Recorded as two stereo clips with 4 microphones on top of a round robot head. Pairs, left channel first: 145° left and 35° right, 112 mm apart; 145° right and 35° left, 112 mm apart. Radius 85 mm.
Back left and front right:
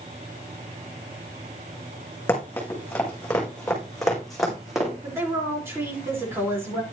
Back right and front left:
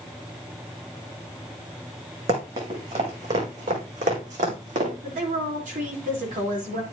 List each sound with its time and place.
2.3 s running footsteps: 75° left, 5 m; by 4.9 s 55° left, 5 m
5.0 s a woman speaking: 35° left, 4 m